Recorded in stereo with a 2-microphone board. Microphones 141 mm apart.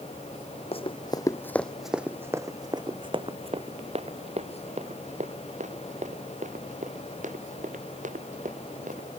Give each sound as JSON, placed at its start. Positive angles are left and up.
{"t": 0.7, "sound": "running footsteps", "side_deg": 45}